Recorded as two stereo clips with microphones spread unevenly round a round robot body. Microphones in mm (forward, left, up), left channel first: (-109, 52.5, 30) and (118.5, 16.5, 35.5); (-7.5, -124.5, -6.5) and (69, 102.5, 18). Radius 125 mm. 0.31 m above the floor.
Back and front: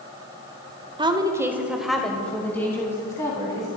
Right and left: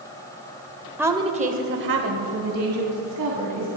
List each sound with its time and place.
1.0 s a woman speaking: 15° right, 1.3 m; by 3.7 s 95° left, 3.5 m